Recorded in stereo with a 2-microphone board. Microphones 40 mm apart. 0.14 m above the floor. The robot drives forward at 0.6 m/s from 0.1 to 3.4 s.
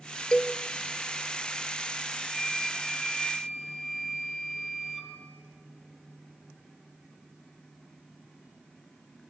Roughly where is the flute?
Centre.